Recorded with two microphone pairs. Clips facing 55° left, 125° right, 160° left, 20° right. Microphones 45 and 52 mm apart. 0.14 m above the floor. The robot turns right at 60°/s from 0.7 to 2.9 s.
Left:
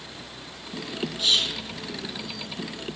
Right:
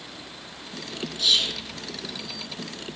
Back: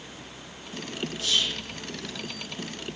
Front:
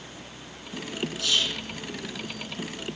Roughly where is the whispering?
Ahead.